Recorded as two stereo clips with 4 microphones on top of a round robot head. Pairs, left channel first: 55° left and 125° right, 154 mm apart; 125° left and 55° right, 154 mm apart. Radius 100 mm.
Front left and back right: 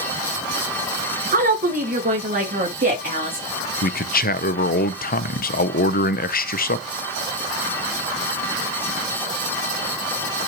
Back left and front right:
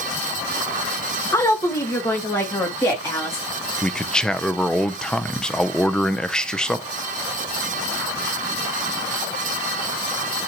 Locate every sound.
1.3 s a woman speaking: 160° right, 1.0 m
3.8 s a man speaking: 40° left, 0.6 m